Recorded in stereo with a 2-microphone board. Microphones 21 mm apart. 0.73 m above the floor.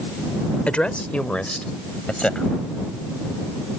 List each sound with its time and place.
0.7 s a woman speaking: 70° left (ahead or behind); by 2.5 s 55° left (ahead or behind)